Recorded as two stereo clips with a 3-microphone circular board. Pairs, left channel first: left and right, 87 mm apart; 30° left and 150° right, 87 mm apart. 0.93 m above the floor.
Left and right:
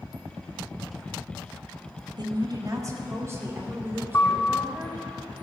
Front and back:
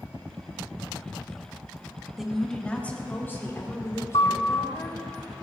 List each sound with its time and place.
2.2 s a woman speaking: 65° right, 1.6 m; by 5.0 s 20° right, 5 m
4.1 s a piano: 30° left, 1.1 m